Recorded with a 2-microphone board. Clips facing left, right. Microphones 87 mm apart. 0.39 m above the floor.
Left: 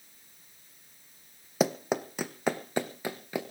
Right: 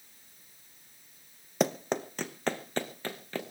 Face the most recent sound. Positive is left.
turn(degrees=15)  # may be behind; listen again after turning